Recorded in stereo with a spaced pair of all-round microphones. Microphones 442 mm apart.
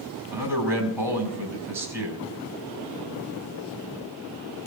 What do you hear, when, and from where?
0.3 s a man speaking: 80° right, 4 m